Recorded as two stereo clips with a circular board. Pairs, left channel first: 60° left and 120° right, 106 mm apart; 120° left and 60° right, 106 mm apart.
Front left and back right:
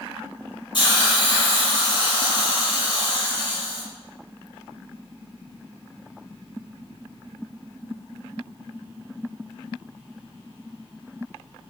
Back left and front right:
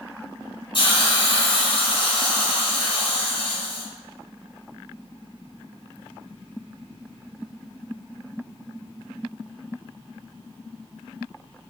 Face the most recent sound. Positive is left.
turn(degrees=95)